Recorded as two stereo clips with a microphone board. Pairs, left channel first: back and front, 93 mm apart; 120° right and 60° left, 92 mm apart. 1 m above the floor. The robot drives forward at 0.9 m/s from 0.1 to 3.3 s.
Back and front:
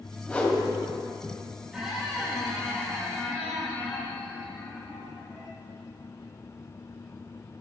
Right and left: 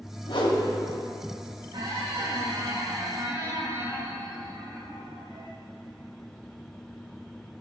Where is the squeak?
85° left, 3.5 m; by 5.5 s 110° left, 3.5 m.